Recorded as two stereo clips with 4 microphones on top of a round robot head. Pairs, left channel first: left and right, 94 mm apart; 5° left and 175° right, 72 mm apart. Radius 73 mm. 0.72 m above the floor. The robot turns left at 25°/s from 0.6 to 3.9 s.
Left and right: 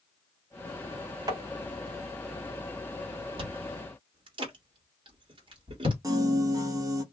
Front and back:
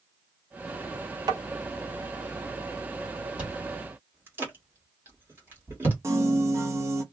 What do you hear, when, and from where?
1.3 s tapping: 140° right, 0.9 m; by 1.4 s 145° right, 0.9 m
3.4 s chewing: 105° right, 1.3 m; by 5.9 s 115° right, 1.3 m
6.0 s a piano: 135° right, 0.7 m